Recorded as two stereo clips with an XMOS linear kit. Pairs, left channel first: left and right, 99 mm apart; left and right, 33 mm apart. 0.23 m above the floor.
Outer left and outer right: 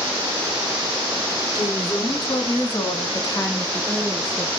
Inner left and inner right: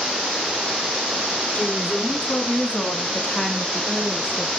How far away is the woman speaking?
About 2.5 m.